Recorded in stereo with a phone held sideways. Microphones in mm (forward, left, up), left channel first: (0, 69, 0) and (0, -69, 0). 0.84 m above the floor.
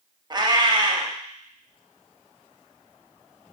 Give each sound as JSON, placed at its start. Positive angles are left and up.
{"t": 0.3, "sound": "a cat meowing", "side_deg": -30, "distance_m": 0.5}